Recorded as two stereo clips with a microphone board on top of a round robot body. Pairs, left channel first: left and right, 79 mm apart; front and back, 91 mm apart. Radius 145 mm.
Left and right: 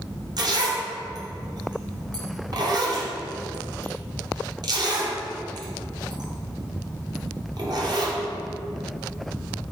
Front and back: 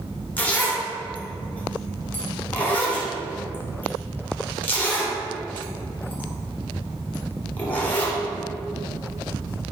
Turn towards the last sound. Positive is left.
turn(degrees=-70)